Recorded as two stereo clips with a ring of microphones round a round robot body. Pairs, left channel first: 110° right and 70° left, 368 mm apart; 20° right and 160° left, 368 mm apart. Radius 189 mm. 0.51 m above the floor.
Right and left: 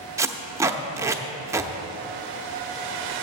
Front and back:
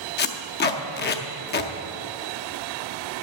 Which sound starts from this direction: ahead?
Tape being pulled, at 0.2 s.